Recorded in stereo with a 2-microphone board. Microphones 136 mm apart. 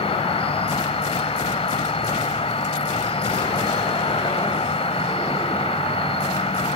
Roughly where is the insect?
Left.